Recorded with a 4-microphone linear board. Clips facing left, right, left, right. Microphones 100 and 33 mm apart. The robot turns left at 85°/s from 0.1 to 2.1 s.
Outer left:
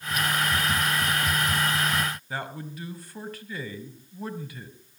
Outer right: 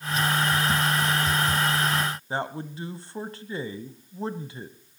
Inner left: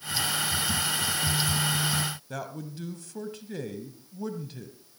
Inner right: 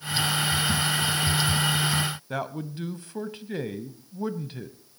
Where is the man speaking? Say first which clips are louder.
Outer right 4 dB, inner right 5 dB; 30° right (ahead or behind), 1.1 m.